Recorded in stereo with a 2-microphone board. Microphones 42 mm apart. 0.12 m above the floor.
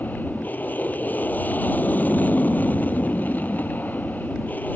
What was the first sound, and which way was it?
An aircraft, 50° left (ahead or behind).